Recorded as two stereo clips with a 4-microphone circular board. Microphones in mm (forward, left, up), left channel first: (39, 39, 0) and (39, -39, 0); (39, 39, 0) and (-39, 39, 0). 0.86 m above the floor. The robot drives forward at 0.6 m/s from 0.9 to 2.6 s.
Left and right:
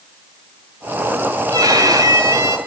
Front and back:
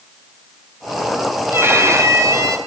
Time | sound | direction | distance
1.5 | a violin | 120° right | 2.5 m